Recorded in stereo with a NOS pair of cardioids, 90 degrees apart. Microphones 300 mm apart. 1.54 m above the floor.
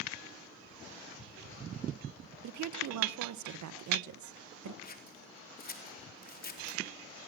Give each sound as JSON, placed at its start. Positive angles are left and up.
{"t": 2.4, "sound": "a woman speaking", "azimuth_deg": -70, "distance_m": 1.8}
{"t": 4.8, "sound": "scissors", "azimuth_deg": 30, "distance_m": 4.0}